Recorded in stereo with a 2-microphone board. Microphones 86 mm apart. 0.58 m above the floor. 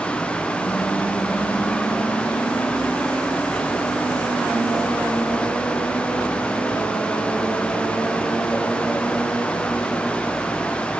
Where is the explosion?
I don't hear an explosion.